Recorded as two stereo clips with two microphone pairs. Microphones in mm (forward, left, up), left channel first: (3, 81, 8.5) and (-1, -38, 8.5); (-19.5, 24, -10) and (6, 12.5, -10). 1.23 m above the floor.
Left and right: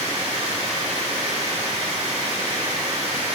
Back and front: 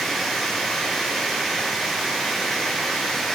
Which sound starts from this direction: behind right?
Running water, at 0.0 s.